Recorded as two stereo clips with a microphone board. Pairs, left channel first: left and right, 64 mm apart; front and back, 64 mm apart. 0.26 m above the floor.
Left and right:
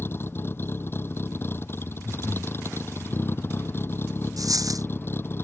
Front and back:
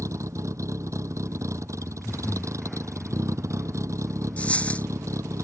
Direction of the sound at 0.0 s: 145° left.